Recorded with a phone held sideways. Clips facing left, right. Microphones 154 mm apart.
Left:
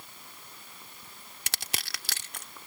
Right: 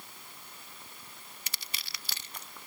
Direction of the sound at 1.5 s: 80° left.